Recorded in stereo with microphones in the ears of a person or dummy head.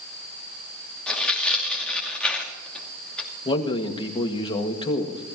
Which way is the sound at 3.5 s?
30° left (ahead or behind).